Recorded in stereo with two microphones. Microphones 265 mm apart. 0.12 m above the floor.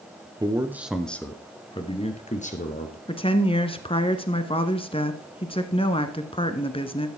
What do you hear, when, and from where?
0.4 s a man speaking: 15° right (ahead or behind), 1.2 m; by 3.0 s 30° left (ahead or behind), 2.5 m
3.1 s a woman speaking: 20° left (ahead or behind), 1.1 m